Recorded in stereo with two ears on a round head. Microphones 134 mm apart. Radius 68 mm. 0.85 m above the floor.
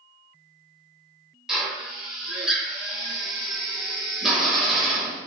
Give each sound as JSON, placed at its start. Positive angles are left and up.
{"t": 1.5, "sound": "a drill", "side_deg": -5, "distance_m": 1.2}